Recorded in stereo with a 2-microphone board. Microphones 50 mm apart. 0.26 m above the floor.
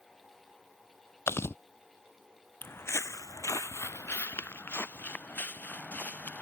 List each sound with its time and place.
1.3 s chewing: 55° left (ahead or behind)
2.6 s footsteps: 40° left (ahead or behind); by 6.4 s 35° left (ahead or behind)